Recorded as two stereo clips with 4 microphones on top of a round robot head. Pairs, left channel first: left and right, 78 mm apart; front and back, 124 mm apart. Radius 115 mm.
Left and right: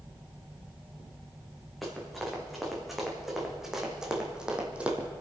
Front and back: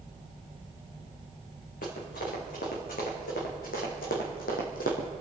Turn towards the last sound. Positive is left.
turn(degrees=-25)